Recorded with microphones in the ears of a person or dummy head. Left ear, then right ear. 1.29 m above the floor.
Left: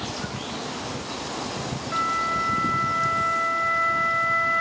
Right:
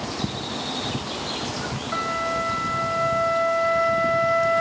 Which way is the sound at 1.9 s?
Centre (ahead or behind).